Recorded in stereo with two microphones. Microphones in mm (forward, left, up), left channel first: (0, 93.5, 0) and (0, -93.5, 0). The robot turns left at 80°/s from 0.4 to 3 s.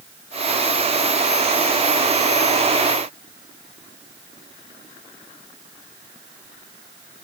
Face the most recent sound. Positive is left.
No sound to turn to.